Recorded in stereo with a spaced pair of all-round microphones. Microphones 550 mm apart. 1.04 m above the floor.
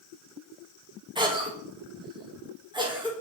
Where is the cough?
10° right (ahead or behind), 1.5 m.